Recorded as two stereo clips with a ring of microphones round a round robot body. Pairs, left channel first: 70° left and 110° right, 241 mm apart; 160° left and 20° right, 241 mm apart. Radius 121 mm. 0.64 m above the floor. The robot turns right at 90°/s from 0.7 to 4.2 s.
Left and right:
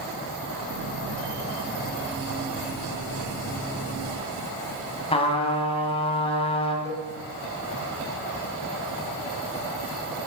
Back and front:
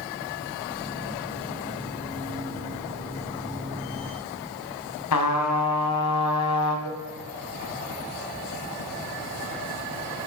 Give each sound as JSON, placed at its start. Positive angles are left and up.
{"t": 5.1, "sound": "a trumpet", "azimuth_deg": 135, "distance_m": 3.0}
{"t": 6.8, "sound": "a cowbell", "azimuth_deg": 145, "distance_m": 2.0}